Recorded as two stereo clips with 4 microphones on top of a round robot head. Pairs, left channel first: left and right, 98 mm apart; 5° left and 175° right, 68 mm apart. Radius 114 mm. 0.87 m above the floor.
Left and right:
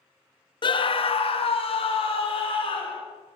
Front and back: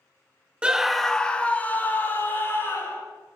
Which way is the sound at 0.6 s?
110° left.